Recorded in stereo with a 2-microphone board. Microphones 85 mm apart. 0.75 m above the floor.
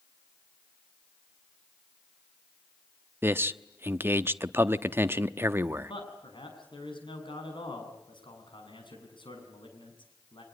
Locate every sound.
3.2 s a man speaking: 25° right (ahead or behind), 0.9 m
5.9 s a man speaking: 70° left (ahead or behind), 7 m